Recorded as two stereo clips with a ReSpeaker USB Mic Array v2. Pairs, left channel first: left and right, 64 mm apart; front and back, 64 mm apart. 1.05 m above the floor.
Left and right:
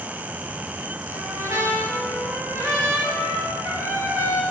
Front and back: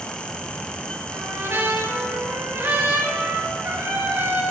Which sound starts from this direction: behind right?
A trumpet, at 1.1 s.